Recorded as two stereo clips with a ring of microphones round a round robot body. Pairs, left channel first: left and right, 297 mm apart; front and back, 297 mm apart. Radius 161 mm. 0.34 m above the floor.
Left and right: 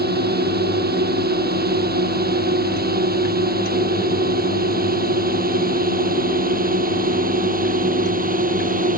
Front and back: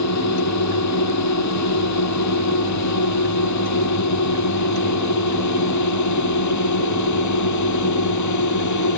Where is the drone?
30° right; by 9.0 s 25° right.